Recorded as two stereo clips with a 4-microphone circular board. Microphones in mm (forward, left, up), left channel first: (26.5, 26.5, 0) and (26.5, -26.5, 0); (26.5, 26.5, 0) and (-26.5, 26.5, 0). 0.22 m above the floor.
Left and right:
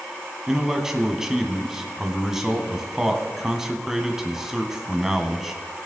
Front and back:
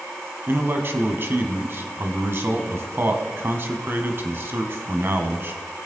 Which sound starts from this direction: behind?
A man speaking, at 0.5 s.